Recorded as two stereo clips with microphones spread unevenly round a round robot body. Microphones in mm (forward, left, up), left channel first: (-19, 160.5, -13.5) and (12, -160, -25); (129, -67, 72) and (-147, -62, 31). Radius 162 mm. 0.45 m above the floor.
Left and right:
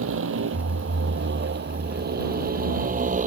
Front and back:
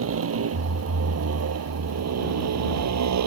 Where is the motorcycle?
140° right; by 3.3 s 155° right.